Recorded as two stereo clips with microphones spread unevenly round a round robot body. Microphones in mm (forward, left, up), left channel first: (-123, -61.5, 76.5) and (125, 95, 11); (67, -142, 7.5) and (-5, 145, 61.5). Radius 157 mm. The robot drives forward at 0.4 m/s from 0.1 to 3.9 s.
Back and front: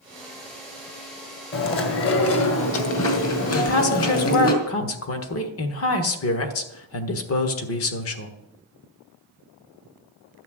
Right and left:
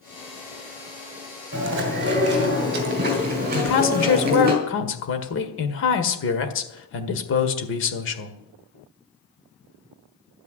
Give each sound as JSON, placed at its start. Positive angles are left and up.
{"t": 1.5, "sound": "chewing", "azimuth_deg": 160, "distance_m": 1.8}
{"t": 3.5, "sound": "a woman speaking", "azimuth_deg": -95, "distance_m": 1.6}